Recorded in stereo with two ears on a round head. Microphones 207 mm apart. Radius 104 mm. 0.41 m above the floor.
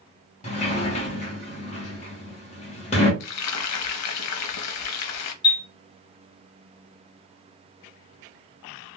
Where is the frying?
75° left (ahead or behind), 0.5 m.